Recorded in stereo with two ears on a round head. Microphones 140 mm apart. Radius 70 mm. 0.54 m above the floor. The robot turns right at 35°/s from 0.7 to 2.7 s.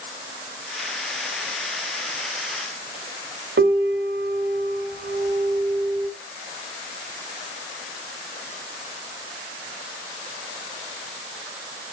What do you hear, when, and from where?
3.6 s a piano: 80° right, 0.8 m